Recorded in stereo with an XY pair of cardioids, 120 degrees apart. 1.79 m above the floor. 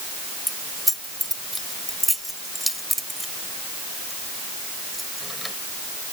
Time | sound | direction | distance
0.5 | keys jangling | straight ahead | ?